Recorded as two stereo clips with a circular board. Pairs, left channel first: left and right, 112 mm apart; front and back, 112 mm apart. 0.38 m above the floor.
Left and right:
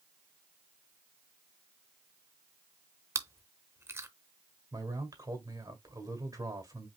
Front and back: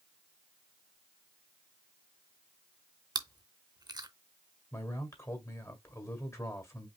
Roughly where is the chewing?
Behind right.